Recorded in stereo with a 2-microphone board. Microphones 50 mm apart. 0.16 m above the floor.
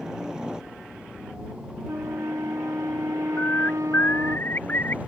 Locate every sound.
0.0 s a helicopter: 15° right (ahead or behind); by 5.1 s 30° right (ahead or behind)
1.9 s a flute: 90° right
3.4 s a bird: 40° left (ahead or behind)